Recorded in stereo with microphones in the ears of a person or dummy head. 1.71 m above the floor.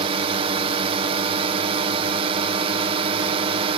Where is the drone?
25° right (ahead or behind).